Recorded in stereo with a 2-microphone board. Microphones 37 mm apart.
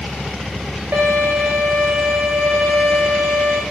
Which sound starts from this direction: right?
A violin, at 0.9 s.